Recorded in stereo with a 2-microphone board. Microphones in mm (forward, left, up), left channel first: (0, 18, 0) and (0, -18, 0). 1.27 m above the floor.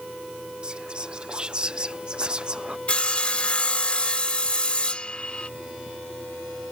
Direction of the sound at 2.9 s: 30° left (ahead or behind).